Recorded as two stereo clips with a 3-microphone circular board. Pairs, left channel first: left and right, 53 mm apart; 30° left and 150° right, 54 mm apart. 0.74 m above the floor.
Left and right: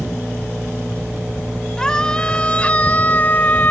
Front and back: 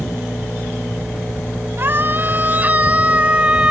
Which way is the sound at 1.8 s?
165° left.